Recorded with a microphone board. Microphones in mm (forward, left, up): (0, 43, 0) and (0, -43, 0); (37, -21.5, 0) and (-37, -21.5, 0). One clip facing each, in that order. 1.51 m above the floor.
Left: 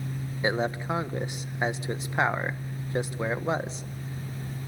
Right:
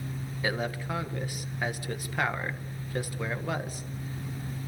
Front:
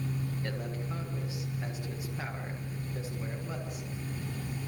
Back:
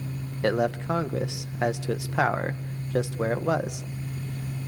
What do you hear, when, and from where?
0.4 s a man speaking: 160° left, 1.5 m